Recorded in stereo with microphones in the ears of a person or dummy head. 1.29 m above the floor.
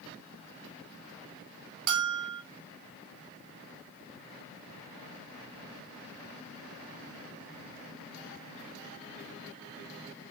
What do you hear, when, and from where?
1.9 s a bell: 65° right (ahead or behind), 1.2 m